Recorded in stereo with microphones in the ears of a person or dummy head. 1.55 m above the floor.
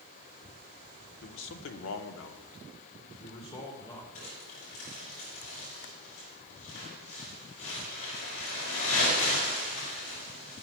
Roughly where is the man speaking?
Left.